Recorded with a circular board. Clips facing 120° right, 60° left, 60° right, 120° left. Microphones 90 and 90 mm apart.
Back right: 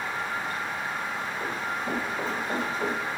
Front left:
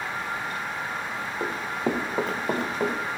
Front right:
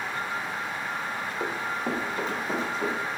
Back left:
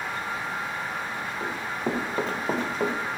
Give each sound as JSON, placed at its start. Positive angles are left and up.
{"t": 1.4, "sound": "running footsteps", "azimuth_deg": 10, "distance_m": 0.7}